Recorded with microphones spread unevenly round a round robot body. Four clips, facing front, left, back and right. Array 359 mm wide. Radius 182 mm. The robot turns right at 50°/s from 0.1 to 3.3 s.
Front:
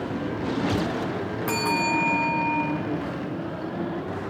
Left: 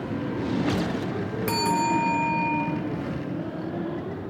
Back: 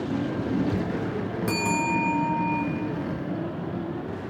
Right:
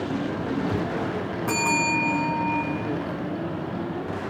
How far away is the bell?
About 1.0 m.